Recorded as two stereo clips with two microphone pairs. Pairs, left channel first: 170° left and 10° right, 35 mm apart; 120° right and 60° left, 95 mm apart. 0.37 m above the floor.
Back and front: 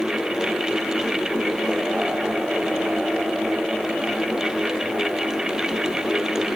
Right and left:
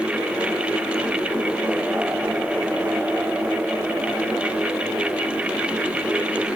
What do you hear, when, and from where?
Only background noise.